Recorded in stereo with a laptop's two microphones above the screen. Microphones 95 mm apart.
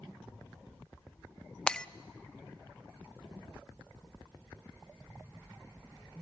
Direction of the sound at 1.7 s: 10° left (ahead or behind).